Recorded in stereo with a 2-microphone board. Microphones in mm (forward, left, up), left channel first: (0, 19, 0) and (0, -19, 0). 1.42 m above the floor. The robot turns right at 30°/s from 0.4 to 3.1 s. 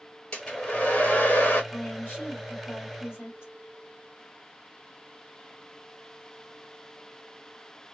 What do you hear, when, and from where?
0.3 s a hair dryer: 30° left, 1.5 m; by 1.6 s 65° left, 1.5 m
1.7 s a woman speaking: 45° left, 2 m; by 3.5 s 90° left, 2 m